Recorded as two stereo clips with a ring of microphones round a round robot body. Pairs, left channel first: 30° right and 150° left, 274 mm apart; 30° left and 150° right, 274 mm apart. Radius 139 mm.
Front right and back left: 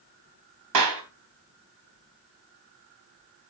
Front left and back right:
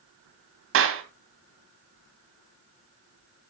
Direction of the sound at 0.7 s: 165° left.